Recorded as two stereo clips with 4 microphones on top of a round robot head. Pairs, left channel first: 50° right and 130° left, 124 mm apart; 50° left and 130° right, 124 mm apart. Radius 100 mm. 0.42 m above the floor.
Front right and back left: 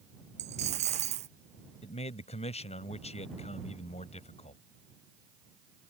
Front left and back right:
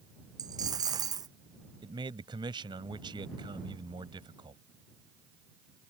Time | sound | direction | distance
0.4 | a dropped coin | 165° left | ?
1.8 | a man speaking | 80° right | ?